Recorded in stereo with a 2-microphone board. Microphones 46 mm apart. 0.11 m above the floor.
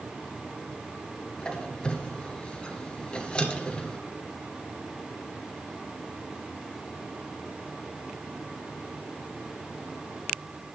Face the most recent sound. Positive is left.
turn(degrees=20)  # may be behind; listen again after turning